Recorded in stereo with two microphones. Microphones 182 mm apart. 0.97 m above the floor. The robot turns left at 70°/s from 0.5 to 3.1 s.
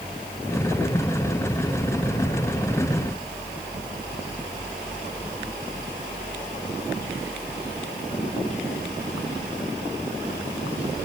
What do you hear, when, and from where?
Only background noise.